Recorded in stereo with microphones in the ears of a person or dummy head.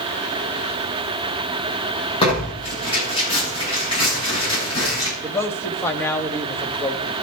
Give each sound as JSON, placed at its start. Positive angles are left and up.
{"t": 2.2, "sound": "tearing paper", "side_deg": 30, "distance_m": 9.0}
{"t": 5.2, "sound": "a man speaking", "side_deg": 10, "distance_m": 1.9}